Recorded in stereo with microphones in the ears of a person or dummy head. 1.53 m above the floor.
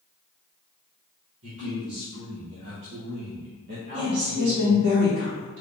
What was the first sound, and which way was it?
A man speaking, 70° right (ahead or behind).